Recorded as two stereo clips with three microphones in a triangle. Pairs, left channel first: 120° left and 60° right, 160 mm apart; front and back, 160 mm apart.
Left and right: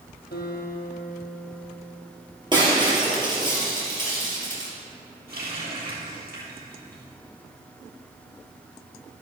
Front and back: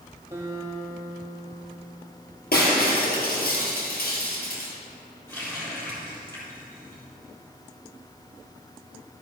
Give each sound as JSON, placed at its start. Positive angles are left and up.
{"t": 0.3, "sound": "a guitar", "azimuth_deg": 110, "distance_m": 3.0}
{"t": 2.5, "sound": "breaking glass", "azimuth_deg": 0, "distance_m": 2.5}
{"t": 5.3, "sound": "a running tap", "azimuth_deg": -75, "distance_m": 3.5}